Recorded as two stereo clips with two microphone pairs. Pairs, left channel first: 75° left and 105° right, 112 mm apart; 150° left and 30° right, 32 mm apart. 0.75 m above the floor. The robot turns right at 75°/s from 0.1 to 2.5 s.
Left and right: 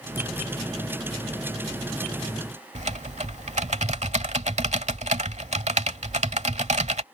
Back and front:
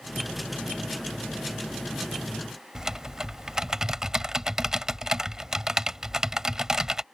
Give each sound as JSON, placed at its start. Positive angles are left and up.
{"t": 2.8, "sound": "typing on a keyboard", "azimuth_deg": -100}